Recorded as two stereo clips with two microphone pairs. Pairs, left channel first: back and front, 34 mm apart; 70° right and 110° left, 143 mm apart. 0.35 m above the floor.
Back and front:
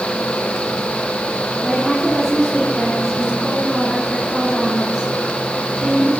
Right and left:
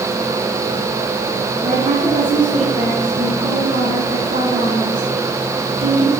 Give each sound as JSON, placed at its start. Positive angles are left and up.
{"t": 1.6, "sound": "a woman speaking", "azimuth_deg": 85, "distance_m": 3.0}